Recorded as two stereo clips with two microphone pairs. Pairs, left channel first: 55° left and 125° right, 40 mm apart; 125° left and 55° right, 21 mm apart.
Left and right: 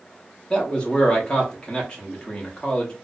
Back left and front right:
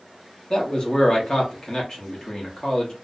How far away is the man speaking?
About 0.8 m.